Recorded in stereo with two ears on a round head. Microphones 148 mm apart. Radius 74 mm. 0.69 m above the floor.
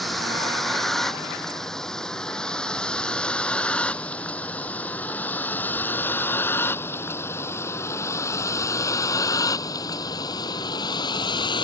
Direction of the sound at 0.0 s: Centre (ahead or behind).